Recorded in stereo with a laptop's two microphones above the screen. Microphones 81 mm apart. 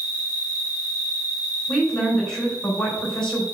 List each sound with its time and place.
0.0 s an insect: 15° right (ahead or behind), 3 m
1.7 s a woman speaking: 5° left (ahead or behind), 3.5 m